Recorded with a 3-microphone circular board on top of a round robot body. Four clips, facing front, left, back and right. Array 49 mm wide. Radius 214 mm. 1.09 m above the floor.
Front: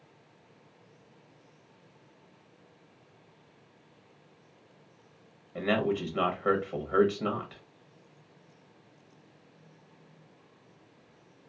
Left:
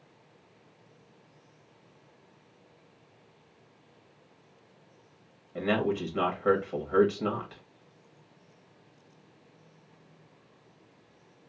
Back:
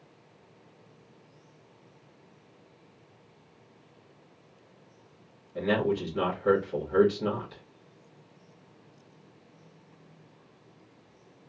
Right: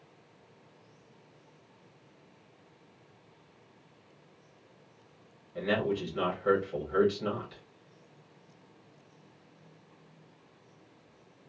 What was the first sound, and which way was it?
A man speaking, 50° left.